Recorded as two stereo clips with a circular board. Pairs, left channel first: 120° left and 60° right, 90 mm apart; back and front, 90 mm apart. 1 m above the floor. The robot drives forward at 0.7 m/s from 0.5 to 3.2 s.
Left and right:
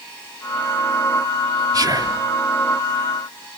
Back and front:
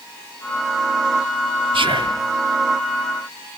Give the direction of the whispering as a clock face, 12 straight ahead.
12 o'clock.